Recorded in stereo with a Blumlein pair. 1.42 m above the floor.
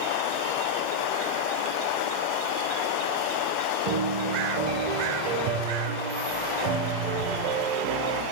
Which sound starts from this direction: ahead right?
A piano, at 3.9 s.